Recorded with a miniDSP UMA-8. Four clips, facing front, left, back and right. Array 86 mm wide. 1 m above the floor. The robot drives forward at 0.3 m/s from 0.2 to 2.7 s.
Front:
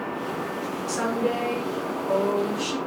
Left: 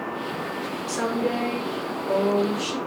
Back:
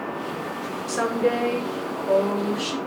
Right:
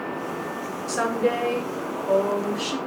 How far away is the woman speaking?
About 0.8 m.